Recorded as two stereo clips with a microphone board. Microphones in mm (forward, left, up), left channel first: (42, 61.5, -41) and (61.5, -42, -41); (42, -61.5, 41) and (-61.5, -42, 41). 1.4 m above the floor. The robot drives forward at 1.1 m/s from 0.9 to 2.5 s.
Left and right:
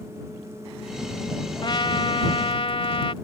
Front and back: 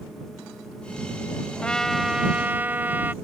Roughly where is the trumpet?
Ahead left.